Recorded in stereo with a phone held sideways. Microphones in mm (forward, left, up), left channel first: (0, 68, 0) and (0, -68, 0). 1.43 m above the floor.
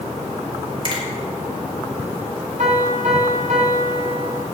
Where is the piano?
65° right (ahead or behind), 2.0 m.